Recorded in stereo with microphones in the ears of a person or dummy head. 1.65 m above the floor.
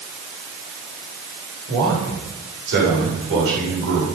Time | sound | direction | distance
1.7 | a man speaking | 70° right (ahead or behind) | 8 m